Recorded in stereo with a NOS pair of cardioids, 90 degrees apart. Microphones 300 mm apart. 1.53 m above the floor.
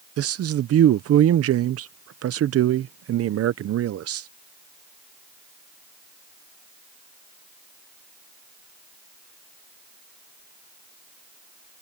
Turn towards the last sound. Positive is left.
turn(degrees=-50)